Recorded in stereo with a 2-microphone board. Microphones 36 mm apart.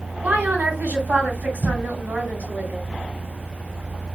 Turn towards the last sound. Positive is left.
turn(degrees=-60)  # may be behind; listen again after turning